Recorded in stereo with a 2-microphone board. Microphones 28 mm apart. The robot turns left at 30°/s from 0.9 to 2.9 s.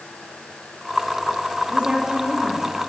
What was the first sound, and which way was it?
A woman speaking, 150° right.